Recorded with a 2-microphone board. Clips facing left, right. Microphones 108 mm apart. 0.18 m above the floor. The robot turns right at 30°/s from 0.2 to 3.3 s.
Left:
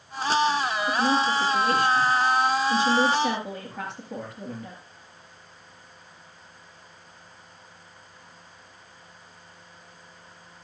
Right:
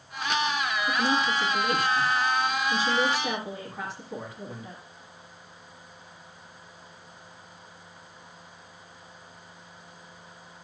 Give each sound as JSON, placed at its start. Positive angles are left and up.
{"t": 0.9, "sound": "a woman speaking", "azimuth_deg": 30, "distance_m": 4.5}